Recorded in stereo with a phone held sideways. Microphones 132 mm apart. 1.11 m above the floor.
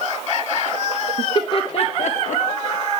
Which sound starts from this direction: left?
Laughter, at 1.2 s.